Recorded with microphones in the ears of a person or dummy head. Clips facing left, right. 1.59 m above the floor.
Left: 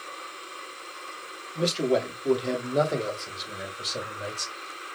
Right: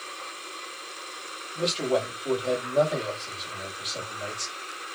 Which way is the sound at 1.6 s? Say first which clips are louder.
Left 2 dB; 20° left (ahead or behind).